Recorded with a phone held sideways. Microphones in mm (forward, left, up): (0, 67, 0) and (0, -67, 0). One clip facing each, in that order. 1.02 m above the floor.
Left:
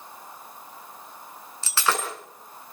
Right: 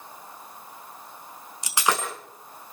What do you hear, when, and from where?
1.6 s breaking glass: 15° right (ahead or behind), 4.5 m